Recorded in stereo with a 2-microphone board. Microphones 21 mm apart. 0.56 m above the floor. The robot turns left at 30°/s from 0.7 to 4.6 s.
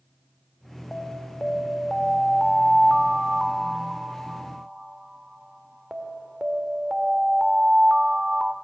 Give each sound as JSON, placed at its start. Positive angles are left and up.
{"t": 0.9, "sound": "an alarm", "azimuth_deg": 60, "distance_m": 1.9}